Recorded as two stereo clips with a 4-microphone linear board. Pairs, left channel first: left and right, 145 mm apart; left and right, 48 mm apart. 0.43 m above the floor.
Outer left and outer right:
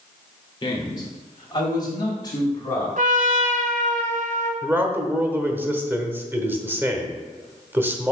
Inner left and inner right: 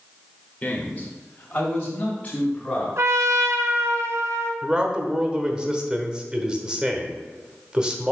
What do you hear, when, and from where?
0.6 s a man speaking: 30° left (ahead or behind), 1.3 m; by 2.9 s 25° left (ahead or behind), 3.5 m
3.0 s a trumpet: 65° right (ahead or behind), 1.0 m
4.6 s a man speaking: 15° right (ahead or behind), 1.0 m